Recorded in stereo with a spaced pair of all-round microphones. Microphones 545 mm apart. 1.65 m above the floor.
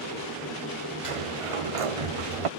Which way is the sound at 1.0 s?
70° right (ahead or behind).